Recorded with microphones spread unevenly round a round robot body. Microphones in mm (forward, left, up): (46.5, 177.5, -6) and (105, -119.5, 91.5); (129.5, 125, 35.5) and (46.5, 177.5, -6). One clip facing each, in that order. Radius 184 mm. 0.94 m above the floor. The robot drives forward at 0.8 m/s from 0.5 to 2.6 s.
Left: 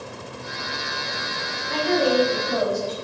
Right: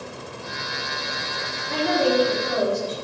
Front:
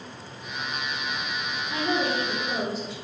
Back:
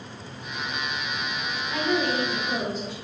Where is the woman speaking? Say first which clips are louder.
Even, back 1 dB; 95° right, 2.5 m; by 2.9 s 110° right, 2.5 m.